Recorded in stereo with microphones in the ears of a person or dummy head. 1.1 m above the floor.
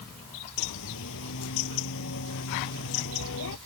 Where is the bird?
75° left (ahead or behind).